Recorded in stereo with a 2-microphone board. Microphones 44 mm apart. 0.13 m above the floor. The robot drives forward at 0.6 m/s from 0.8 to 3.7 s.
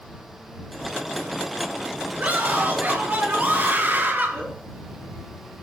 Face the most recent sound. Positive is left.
turn(degrees=-45)  # may be behind; listen again after turning